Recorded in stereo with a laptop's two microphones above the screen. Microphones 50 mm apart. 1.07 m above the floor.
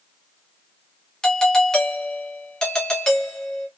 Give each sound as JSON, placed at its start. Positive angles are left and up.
{"t": 1.2, "sound": "a doorbell", "side_deg": 15, "distance_m": 0.7}